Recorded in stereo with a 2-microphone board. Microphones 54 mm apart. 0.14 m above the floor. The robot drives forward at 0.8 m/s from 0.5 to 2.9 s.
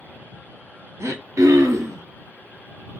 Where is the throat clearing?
55° right (ahead or behind), 0.7 m; by 2.0 s 45° right (ahead or behind), 0.8 m.